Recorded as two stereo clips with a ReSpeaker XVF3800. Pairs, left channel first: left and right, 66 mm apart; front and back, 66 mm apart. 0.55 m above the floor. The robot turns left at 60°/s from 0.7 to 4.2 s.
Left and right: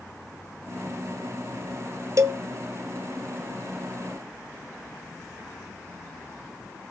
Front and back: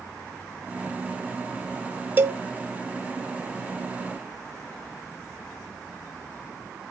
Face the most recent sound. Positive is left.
turn(degrees=110)